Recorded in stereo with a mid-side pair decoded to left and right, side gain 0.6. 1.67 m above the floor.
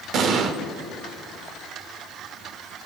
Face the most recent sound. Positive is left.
turn(degrees=-55)